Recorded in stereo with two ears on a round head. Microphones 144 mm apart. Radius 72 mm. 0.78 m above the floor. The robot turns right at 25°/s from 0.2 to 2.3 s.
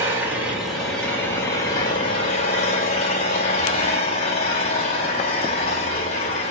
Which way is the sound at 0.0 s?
15° right.